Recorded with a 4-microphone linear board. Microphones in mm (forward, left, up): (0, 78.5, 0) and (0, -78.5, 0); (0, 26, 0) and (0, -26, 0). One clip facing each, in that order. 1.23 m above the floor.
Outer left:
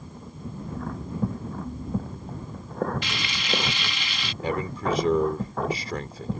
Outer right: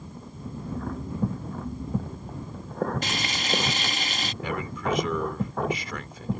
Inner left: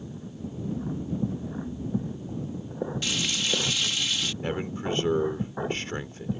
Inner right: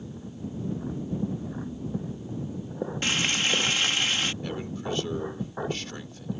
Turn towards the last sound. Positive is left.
turn(degrees=40)  # may be behind; listen again after turning